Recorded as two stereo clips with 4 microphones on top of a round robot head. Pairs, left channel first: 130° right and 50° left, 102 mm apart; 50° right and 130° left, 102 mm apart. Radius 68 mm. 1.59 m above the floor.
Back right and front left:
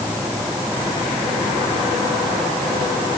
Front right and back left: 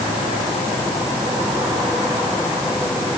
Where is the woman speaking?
No woman speaking in this recording.